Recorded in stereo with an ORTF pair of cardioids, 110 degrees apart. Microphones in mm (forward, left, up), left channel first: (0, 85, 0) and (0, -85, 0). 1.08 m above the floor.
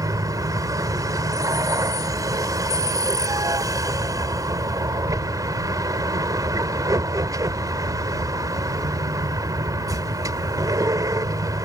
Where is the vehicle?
25° right.